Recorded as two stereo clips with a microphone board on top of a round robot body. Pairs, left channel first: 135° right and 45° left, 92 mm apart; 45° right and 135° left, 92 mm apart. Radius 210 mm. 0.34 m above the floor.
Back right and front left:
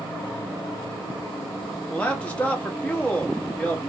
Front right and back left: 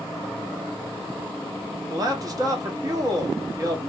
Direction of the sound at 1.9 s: 155° left.